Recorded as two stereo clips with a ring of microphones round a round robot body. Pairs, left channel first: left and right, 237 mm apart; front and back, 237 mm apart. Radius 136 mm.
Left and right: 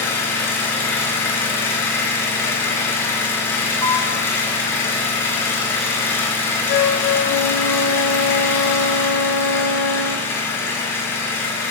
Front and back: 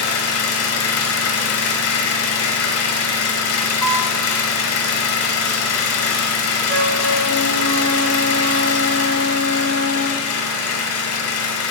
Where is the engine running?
10° left, 1.2 m.